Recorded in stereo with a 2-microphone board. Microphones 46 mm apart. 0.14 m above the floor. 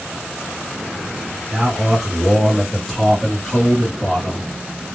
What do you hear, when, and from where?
1.5 s a man speaking: 10° right (ahead or behind), 1.7 m; by 4.5 s 15° left (ahead or behind), 1.7 m